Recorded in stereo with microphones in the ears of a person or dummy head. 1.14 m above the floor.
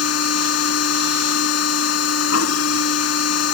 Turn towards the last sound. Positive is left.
turn(degrees=75)  # may be behind; listen again after turning